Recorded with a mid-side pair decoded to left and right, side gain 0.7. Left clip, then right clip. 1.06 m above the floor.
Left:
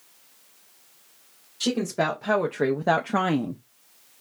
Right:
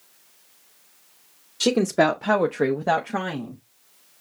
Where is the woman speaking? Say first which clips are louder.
Right 6 dB; 45° right, 0.9 m; by 3.6 s 45° left, 0.6 m.